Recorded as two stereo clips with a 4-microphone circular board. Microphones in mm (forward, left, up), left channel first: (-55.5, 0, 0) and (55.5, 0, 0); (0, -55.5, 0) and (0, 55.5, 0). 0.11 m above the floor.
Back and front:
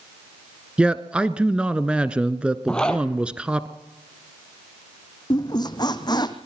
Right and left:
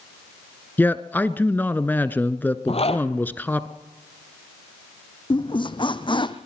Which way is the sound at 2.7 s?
100° right.